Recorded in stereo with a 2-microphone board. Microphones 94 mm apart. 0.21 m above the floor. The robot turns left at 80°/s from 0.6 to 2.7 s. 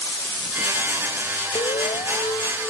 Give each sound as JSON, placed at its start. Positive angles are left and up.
{"t": 1.6, "sound": "an alarm", "azimuth_deg": 105}